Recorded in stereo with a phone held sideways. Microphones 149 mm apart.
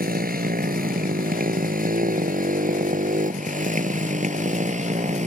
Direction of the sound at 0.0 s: 80° right.